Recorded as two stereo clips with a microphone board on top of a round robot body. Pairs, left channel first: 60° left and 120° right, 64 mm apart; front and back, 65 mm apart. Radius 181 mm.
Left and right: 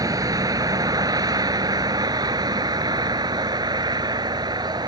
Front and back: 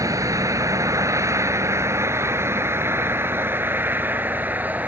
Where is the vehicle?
145° right; by 4.9 s 115° right.